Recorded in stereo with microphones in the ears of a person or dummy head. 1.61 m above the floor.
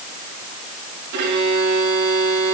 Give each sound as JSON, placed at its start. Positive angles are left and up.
{"t": 1.1, "sound": "a violin", "side_deg": -65, "distance_m": 7.5}